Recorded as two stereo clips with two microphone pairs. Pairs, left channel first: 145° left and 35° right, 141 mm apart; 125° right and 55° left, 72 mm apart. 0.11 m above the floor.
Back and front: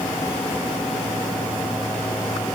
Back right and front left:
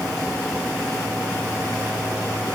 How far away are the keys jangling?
No keys jangling in this recording.